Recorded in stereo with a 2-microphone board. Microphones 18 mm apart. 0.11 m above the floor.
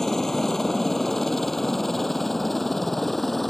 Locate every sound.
0.0 s a helicopter: 15° left (ahead or behind); by 3.5 s 5° left (ahead or behind)